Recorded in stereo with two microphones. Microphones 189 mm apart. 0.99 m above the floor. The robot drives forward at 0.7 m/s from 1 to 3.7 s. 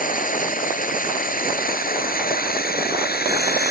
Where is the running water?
45° left (ahead or behind); by 3.7 s 55° left (ahead or behind).